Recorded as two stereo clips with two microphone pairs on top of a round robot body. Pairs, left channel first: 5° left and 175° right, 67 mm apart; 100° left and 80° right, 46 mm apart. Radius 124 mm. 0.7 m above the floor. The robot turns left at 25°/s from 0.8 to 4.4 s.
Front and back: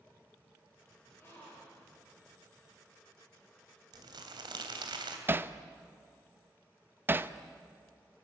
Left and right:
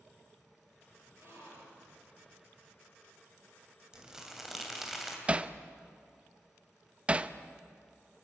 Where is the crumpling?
155° right, 2.5 m; by 5.2 s 165° right, 2.5 m.